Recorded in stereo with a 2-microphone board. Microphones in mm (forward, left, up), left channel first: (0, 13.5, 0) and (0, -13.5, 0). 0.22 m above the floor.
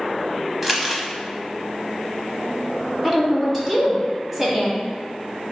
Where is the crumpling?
10° right (ahead or behind), 0.9 m.